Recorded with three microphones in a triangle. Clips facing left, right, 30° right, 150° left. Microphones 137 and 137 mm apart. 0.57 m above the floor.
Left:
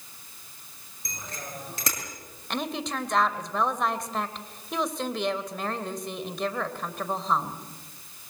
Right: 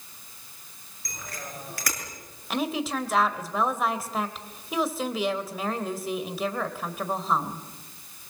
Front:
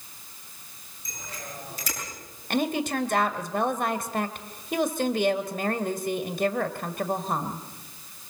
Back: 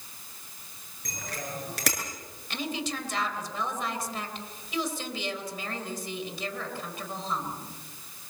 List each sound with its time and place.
1.1 s a bicycle bell: 155° left, 7 m
2.5 s a woman speaking: 5° right, 2 m